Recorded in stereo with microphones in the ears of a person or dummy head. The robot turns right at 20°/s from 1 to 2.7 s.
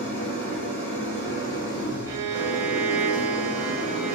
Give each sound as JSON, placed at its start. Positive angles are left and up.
{"t": 0.0, "sound": "an engine running", "azimuth_deg": 15, "distance_m": 2.0}
{"t": 2.1, "sound": "a violin", "side_deg": -15, "distance_m": 0.6}